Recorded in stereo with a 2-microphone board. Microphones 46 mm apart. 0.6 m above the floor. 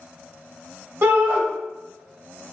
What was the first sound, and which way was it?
A shout, 55° right (ahead or behind).